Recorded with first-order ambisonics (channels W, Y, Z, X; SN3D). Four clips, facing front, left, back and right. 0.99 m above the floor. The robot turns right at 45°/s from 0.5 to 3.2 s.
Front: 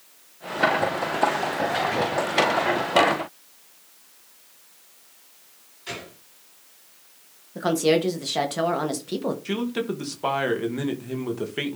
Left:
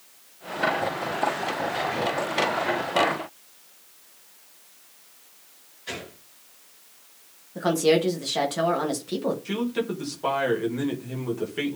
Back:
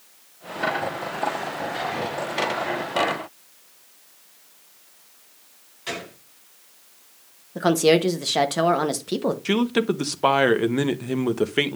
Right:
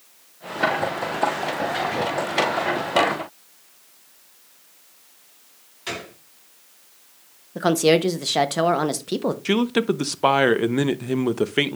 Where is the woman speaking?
125° right, 0.9 m.